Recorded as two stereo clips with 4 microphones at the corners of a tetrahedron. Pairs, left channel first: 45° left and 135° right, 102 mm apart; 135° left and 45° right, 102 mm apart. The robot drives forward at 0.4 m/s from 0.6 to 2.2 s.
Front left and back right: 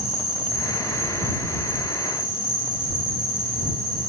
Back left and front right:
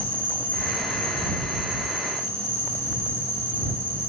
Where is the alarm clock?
No alarm clock in this recording.